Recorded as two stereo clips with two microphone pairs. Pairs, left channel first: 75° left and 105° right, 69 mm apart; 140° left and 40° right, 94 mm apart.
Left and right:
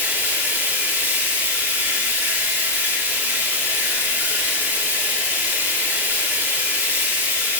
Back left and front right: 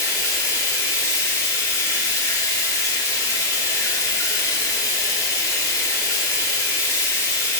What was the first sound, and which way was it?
Running water, 170° right.